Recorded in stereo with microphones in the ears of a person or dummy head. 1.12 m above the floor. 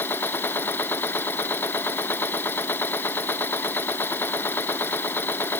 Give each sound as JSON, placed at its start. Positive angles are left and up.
{"t": 0.0, "sound": "a machine running", "side_deg": 15}